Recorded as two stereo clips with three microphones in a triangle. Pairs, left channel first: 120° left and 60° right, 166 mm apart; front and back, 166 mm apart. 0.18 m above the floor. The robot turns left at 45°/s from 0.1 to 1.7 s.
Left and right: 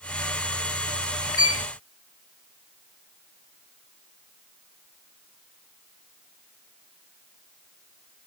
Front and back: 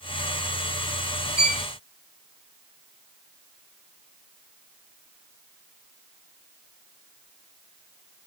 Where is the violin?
55° right, 1.5 m; by 1.6 s 65° right, 1.5 m.